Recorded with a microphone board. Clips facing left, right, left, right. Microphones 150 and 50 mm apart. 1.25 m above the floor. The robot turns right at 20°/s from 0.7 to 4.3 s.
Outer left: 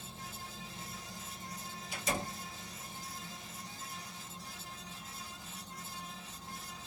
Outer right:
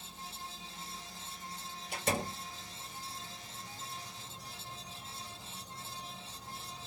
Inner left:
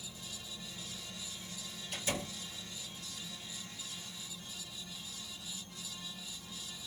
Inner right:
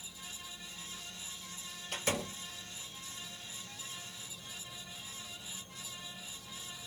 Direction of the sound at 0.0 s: 120° left.